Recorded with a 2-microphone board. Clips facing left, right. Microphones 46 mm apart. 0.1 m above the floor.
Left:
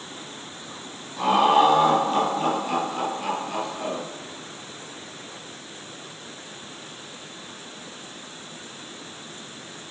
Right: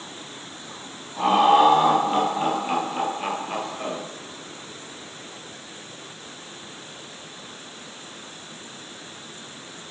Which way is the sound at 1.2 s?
20° right (ahead or behind).